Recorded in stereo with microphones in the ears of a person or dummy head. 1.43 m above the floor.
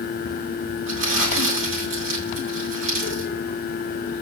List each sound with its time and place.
0.9 s crumpling: 65° right (ahead or behind), 5.5 m